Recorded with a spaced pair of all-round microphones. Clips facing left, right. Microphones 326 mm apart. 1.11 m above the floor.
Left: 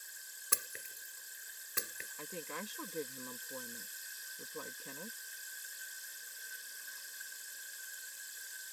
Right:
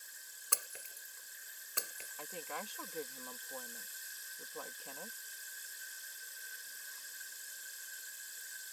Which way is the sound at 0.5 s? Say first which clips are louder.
Left 2 dB; 25° left (ahead or behind).